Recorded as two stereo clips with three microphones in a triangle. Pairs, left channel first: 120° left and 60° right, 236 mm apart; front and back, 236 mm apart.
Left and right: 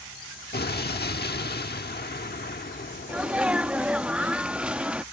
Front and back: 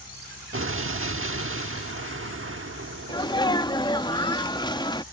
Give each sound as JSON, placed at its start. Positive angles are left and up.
{"t": 0.5, "sound": "an explosion", "azimuth_deg": 165}
{"t": 3.1, "sound": "a sneeze", "azimuth_deg": 15}